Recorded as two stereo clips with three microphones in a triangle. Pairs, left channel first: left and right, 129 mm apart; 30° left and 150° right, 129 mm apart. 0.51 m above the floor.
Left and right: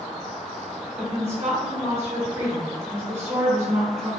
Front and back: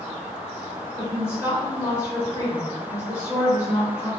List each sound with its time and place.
1.0 s a woman speaking: 30° right, 1.0 m